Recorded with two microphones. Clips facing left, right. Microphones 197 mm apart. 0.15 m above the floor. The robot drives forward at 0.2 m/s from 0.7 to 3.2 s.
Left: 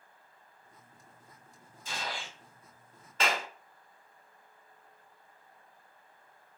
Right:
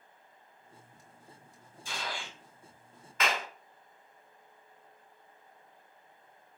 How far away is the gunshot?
About 1.6 m.